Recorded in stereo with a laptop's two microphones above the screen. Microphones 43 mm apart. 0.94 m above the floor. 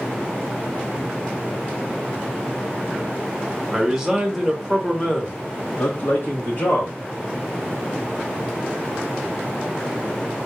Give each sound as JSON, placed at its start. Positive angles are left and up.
{"t": 3.7, "sound": "a man speaking", "side_deg": -10, "distance_m": 1.5}